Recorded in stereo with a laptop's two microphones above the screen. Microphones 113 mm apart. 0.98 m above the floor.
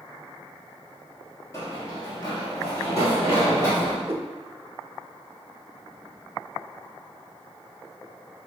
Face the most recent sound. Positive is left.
turn(degrees=-20)  # may be behind; listen again after turning